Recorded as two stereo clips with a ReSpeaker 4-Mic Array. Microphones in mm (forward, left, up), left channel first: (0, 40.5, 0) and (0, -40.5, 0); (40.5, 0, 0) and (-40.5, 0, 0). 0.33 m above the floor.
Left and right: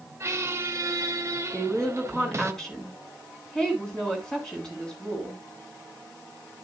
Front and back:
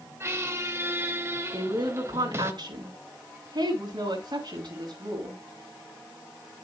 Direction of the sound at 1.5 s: 170° left.